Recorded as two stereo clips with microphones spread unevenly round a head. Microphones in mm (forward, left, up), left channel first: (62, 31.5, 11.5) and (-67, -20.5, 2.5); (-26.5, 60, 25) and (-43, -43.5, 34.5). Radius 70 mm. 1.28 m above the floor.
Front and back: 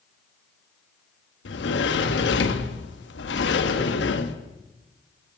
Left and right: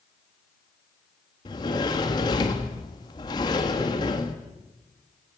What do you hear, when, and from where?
1.4 s a sliding door: 20° left, 1.7 m